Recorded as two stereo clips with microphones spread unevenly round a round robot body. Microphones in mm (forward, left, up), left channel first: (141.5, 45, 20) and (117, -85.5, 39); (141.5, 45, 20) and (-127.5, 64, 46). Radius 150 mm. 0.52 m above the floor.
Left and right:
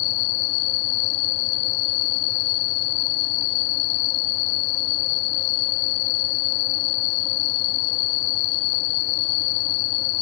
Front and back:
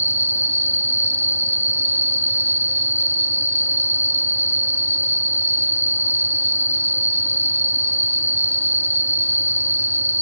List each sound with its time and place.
0.0 s an insect: 115° left